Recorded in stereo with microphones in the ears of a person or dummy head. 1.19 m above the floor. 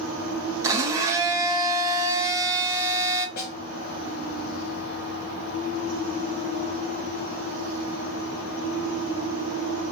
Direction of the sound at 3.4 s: 55° left (ahead or behind).